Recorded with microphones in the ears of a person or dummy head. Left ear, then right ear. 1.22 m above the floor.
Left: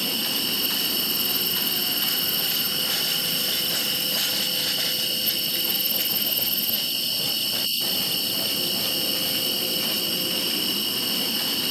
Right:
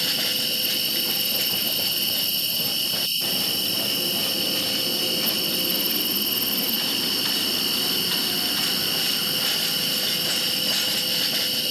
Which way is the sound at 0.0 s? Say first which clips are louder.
Right 2 dB; 5° left (ahead or behind).